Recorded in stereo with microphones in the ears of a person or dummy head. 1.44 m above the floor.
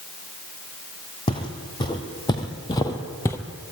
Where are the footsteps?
25° left (ahead or behind), 3 m; by 3.4 s 15° left (ahead or behind), 1.7 m.